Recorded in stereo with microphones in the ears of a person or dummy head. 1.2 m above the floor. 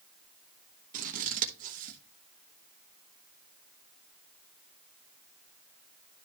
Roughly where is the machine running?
I don't hear a machine running.